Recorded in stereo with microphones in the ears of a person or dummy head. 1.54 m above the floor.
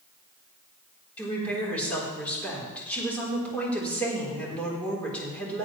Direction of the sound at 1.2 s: 10° left (ahead or behind).